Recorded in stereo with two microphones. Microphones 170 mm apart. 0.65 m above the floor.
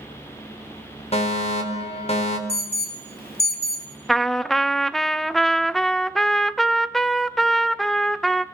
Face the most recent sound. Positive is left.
turn(degrees=0)  # may be behind; listen again after turning